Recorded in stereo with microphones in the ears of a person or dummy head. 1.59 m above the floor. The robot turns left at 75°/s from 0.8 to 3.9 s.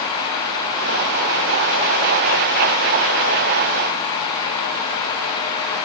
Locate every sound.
Only background noise.